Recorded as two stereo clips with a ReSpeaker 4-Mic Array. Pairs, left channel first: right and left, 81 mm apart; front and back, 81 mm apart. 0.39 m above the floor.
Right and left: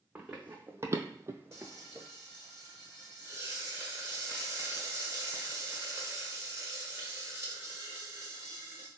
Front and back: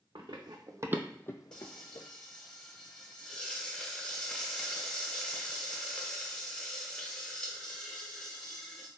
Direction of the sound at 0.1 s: 165° left.